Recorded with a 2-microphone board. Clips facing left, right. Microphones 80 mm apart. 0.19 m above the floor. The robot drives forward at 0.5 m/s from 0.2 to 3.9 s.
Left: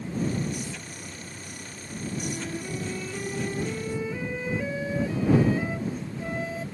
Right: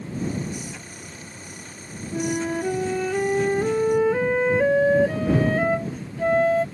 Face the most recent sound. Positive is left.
turn(degrees=-60)  # may be behind; listen again after turning